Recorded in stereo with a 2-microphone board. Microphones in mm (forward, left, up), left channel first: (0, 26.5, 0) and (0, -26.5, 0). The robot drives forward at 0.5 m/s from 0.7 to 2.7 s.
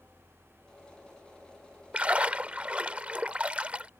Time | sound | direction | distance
1.9 | a splash | 25° right (ahead or behind) | ?